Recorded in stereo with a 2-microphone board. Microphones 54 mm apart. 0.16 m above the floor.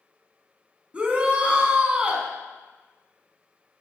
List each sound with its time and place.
0.9 s a shout: 20° right (ahead or behind), 1.3 m